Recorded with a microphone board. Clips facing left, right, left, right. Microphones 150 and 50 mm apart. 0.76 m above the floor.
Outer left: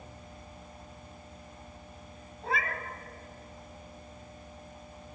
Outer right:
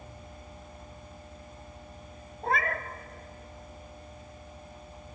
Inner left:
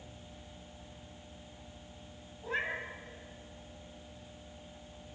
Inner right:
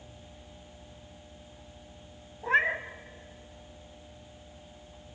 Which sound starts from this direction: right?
A cat meowing, at 2.4 s.